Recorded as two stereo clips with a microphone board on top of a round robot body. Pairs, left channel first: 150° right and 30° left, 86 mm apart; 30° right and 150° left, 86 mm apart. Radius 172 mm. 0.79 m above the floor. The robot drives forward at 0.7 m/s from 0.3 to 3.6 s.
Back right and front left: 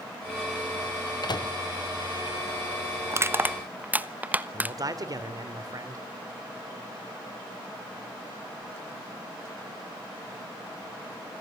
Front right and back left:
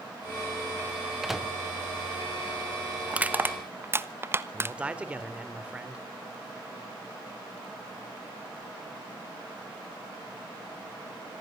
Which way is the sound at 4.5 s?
75° left.